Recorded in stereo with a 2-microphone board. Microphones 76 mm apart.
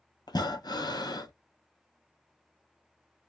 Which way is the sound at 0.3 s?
65° left (ahead or behind).